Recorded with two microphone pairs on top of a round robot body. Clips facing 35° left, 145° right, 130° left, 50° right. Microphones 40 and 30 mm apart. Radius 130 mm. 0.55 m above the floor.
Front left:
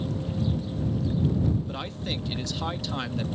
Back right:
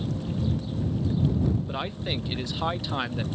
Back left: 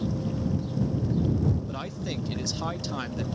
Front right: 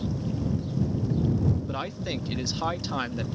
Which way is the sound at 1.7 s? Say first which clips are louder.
Back right 2 dB, front right 2 dB; 60° right.